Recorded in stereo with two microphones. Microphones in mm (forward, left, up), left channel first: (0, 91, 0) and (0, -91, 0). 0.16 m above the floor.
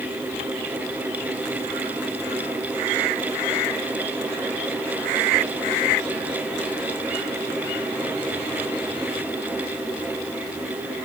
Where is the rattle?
I don't hear a rattle.